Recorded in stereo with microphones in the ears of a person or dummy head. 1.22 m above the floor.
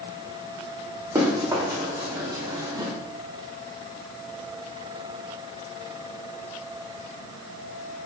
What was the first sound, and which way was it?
Running footsteps, 15° right (ahead or behind).